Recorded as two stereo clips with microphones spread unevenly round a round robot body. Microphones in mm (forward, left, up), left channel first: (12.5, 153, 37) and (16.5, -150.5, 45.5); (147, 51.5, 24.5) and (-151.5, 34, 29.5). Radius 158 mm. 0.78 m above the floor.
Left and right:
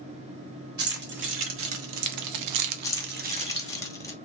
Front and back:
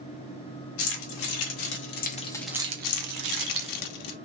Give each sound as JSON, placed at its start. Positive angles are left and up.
{"t": 0.8, "sound": "keys jangling", "azimuth_deg": -30, "distance_m": 2.0}
{"t": 2.8, "sound": "keys jangling", "azimuth_deg": 10, "distance_m": 1.0}